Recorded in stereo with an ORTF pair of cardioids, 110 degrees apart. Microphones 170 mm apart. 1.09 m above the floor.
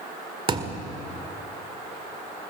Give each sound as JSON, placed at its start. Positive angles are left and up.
{"t": 0.5, "sound": "a thud", "azimuth_deg": -30, "distance_m": 1.8}